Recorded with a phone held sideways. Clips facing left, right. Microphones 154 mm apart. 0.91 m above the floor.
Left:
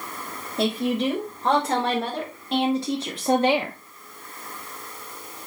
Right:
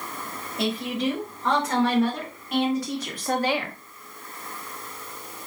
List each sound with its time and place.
0.6 s a woman speaking: 30° left (ahead or behind), 3.5 m; by 3.8 s 20° left (ahead or behind), 0.9 m